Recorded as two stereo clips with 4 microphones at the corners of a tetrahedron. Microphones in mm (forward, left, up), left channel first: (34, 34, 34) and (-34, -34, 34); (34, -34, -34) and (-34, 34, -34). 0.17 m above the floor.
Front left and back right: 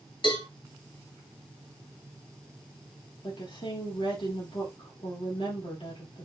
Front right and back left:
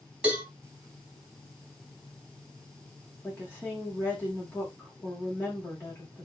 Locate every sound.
0.2 s a cowbell: 60° left, 4 m
3.2 s a woman speaking: 25° left, 6.5 m